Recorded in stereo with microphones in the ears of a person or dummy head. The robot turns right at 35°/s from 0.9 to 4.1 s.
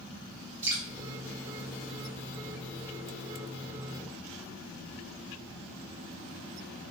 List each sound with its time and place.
0.6 s dripping: 15° right (ahead or behind), 2.5 m